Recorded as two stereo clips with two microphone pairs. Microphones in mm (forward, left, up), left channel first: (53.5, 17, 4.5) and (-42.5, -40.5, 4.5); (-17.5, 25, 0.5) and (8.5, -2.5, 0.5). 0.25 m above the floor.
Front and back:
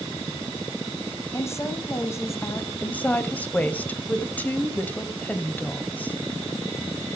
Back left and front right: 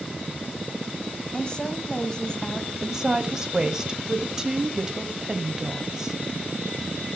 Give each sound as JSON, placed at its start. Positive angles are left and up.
{"t": 1.3, "sound": "a woman speaking", "azimuth_deg": 80, "distance_m": 1.6}
{"t": 2.8, "sound": "a woman speaking", "azimuth_deg": -10, "distance_m": 1.0}